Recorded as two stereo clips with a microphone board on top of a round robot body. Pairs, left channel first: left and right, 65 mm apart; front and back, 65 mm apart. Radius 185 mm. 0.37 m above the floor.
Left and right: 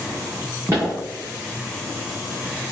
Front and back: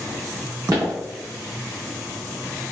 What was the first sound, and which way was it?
Footsteps, 150° right.